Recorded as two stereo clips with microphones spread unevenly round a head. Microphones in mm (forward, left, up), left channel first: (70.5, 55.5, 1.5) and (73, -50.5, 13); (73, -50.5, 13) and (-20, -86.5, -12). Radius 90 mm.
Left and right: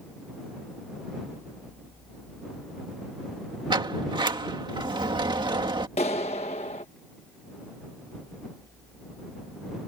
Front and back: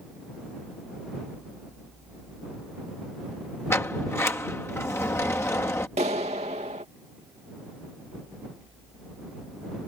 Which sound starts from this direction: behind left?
A clap, at 6.0 s.